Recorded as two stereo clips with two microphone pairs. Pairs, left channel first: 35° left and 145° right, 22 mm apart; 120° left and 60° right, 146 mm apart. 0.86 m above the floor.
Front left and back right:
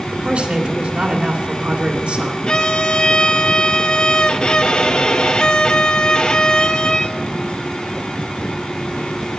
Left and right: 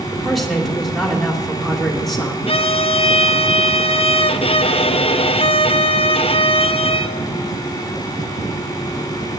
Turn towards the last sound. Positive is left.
turn(degrees=80)